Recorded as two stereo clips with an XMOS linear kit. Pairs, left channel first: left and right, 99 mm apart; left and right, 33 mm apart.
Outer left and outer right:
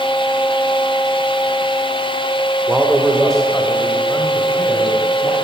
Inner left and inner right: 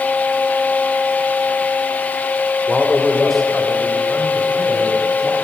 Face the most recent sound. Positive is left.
turn(degrees=20)  # may be behind; listen again after turning